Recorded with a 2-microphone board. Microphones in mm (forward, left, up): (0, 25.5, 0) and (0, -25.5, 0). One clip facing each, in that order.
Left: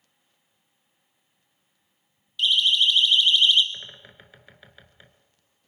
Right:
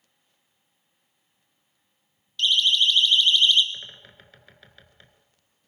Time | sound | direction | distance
2.4 | a siren | 10° left (ahead or behind) | 3 m
3.7 | a bird | 10° left (ahead or behind) | 1.8 m